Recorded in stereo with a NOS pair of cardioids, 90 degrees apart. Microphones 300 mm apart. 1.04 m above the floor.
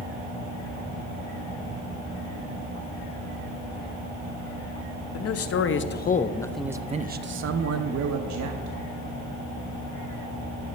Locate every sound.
5.1 s a man speaking: 55° left, 1.1 m; by 8.8 s 70° right, 1.4 m